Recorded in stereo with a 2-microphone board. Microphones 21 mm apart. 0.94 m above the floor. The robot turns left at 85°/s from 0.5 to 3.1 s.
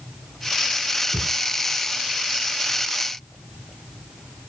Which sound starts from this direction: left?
A thud, at 1.1 s.